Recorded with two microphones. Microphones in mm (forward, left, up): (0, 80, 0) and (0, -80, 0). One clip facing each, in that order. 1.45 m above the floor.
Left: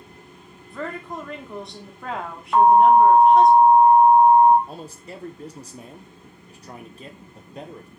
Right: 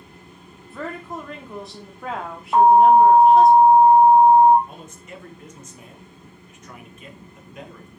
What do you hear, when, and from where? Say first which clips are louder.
0.7 s a woman speaking: even; centre (ahead or behind), 0.9 m
2.5 s an alarm: right 1 dB; 20° right (ahead or behind), 1.0 m
4.7 s a man speaking: left 3 dB; 35° left (ahead or behind), 0.6 m